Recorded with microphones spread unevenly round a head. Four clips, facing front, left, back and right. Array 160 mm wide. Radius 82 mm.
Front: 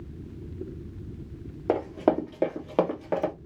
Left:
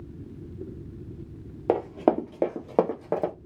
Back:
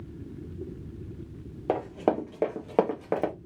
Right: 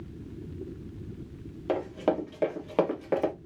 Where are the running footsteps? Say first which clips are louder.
Left 5 dB, front 2 dB; 80° left, 1.4 m; by 3.3 s 150° left, 1.2 m.